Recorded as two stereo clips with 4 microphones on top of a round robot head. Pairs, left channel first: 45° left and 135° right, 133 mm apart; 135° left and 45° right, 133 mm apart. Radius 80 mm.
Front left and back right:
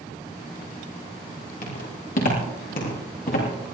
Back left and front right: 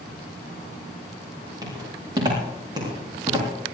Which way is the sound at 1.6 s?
20° left.